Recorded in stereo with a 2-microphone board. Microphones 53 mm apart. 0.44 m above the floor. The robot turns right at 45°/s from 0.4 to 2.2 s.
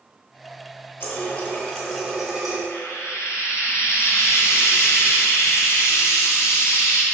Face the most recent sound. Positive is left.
turn(degrees=55)  # may be behind; listen again after turning